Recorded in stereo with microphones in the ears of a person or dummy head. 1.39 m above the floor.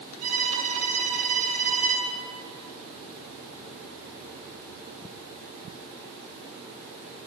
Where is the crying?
I don't hear crying.